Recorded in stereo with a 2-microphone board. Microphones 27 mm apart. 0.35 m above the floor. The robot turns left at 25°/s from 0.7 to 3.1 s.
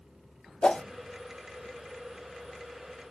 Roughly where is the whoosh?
Left.